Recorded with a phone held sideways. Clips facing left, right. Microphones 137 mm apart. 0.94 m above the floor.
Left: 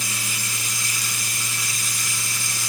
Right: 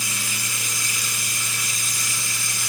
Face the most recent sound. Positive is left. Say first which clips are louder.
# even
turn(degrees=35)  # may be behind; listen again after turning